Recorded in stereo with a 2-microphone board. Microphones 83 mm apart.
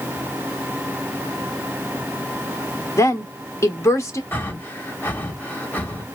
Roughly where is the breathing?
Left.